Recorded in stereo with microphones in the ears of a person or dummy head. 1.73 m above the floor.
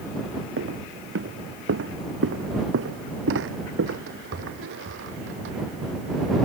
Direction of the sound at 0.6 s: 75° right (ahead or behind).